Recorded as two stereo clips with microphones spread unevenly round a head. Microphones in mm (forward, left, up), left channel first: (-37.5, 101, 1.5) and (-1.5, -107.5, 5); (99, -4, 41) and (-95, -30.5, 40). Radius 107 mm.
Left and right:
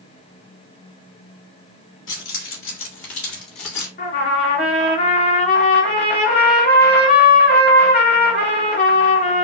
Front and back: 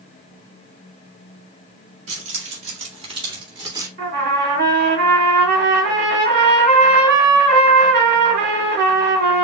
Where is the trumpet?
140° left, 3 m.